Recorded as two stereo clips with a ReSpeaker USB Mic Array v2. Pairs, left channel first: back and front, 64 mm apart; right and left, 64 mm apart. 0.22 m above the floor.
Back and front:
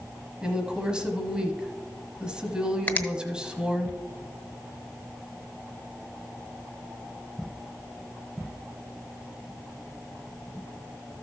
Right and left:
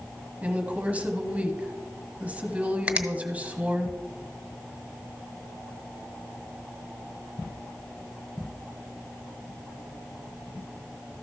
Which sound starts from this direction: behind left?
A finger snap, at 2.9 s.